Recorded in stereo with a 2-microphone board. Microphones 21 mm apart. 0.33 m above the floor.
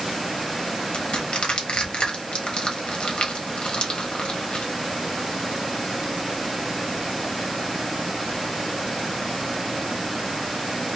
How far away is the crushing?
About 1.0 m.